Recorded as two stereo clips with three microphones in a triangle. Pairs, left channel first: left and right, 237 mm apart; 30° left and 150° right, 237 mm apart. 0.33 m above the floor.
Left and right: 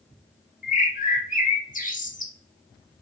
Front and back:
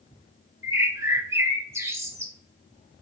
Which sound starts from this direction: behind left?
A bird, at 0.6 s.